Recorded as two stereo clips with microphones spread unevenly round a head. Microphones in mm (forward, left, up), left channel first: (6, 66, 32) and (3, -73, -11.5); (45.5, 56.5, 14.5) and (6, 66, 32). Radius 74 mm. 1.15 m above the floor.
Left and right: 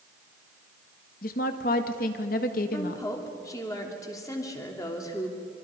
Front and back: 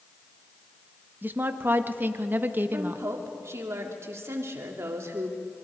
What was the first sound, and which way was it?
A woman speaking, 120° left.